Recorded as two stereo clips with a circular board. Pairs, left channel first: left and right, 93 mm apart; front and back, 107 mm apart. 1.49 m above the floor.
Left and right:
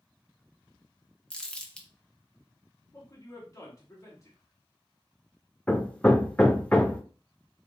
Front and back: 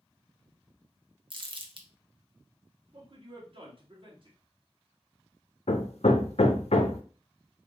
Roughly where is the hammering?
Ahead.